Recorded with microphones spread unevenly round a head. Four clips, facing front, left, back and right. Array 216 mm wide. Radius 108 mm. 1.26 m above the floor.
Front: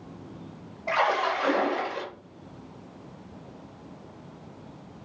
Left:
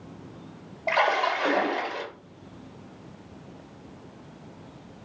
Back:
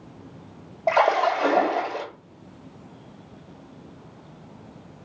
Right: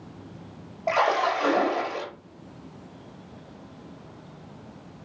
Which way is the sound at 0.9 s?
170° right.